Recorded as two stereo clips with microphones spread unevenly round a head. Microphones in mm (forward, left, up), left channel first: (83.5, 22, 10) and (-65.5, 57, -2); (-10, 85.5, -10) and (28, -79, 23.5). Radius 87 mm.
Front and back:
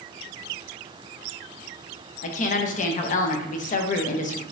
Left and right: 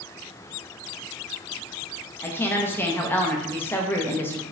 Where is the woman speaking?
25° left, 0.6 m.